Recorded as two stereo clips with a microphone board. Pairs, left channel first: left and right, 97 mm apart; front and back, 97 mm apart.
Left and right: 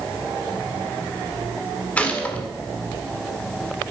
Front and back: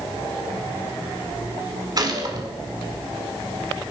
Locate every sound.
2.0 s a gunshot: 160° left, 1.8 m